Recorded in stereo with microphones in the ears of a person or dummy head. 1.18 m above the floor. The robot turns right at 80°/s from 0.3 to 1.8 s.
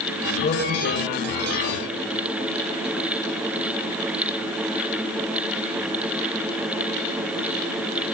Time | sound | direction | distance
0.4 | a man speaking | 35° left | 5.5 m